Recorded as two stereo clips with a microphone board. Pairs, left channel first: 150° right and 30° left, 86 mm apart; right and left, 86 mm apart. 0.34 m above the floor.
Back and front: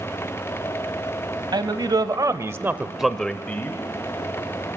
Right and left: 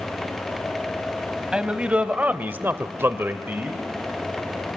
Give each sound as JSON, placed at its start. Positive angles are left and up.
{"t": 1.5, "sound": "a man speaking", "azimuth_deg": 15, "distance_m": 1.6}